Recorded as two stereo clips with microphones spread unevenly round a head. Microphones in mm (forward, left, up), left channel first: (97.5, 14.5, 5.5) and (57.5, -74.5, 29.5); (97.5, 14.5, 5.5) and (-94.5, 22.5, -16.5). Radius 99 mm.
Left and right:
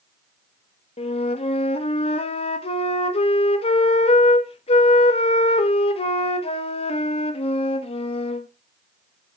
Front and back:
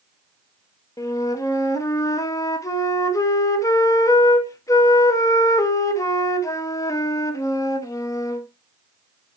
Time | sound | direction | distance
1.0 | a flute | 75° left | 1.0 m